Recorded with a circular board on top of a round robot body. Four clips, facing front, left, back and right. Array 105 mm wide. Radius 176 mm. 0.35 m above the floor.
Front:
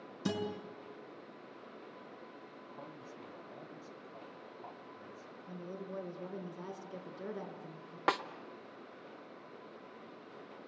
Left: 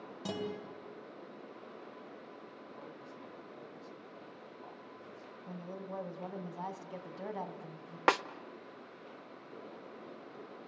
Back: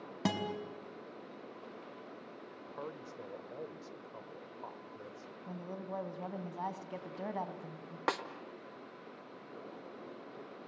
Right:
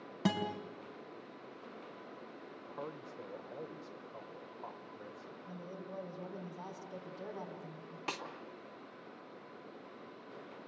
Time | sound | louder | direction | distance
0.2 | a guitar | right 4 dB, back 1 dB | 145° right | 4 m
2.5 | a man speaking | right 4 dB, back 8 dB | 145° right | 2.5 m
5.5 | a woman speaking | left 4 dB, back 2 dB | 155° left | 3.5 m
8.1 | a snare drum | left 14 dB, front 2 dB | 85° left | 1.2 m